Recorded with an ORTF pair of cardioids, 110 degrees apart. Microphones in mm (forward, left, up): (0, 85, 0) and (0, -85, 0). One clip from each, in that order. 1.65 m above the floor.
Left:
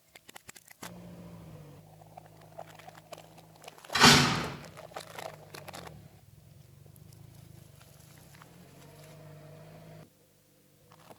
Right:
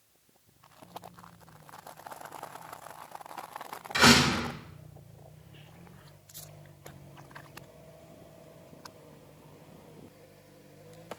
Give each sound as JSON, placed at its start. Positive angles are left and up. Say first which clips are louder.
{"t": 3.9, "sound": "a door slam", "louder": "even", "azimuth_deg": 0, "distance_m": 4.0}